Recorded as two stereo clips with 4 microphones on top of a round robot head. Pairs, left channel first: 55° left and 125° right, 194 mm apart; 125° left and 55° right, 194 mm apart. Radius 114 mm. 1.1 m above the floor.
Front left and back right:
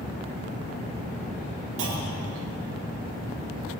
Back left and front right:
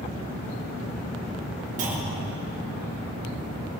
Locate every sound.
1.8 s a clunk: 105° right, 3 m